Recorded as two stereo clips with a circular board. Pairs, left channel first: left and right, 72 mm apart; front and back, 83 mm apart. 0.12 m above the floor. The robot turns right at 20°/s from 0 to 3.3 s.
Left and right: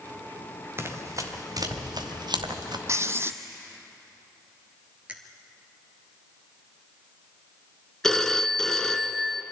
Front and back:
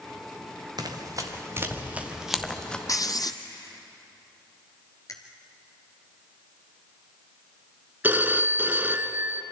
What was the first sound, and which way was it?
Running footsteps, 145° right.